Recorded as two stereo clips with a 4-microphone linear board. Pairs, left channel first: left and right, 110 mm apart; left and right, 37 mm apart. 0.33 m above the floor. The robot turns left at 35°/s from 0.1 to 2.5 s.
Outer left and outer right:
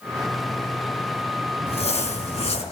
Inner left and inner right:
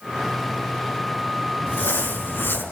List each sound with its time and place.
1.7 s crumpling: 65° left (ahead or behind), 4.5 m; by 2.6 s 70° left (ahead or behind), 4.5 m